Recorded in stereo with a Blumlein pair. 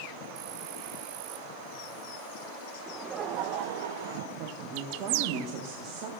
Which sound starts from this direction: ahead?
Laughter, at 2.9 s.